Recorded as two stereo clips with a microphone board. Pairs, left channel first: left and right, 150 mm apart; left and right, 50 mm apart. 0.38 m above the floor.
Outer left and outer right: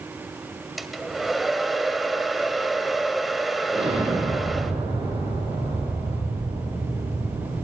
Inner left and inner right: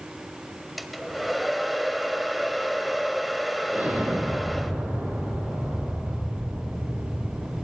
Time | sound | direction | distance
0.8 | a hair dryer | centre (ahead or behind) | 1.5 m
3.7 | an explosion | 40° right (ahead or behind) | 8.5 m